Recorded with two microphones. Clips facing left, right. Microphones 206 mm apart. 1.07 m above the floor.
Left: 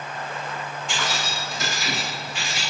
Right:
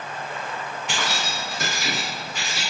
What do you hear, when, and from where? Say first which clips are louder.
0.9 s keys jangling: right 1 dB; 70° right (ahead or behind), 0.5 m; by 2.6 s 40° right (ahead or behind), 1.2 m